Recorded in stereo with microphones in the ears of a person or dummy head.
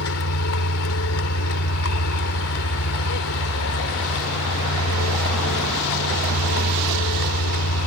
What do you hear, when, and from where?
0.0 s a vehicle: 75° left (ahead or behind)